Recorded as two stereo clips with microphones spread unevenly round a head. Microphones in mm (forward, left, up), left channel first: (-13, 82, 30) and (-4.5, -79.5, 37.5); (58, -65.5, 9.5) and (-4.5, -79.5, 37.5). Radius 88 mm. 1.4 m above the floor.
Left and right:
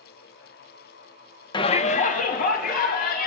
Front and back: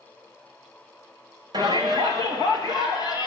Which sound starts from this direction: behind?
A shout, at 1.5 s.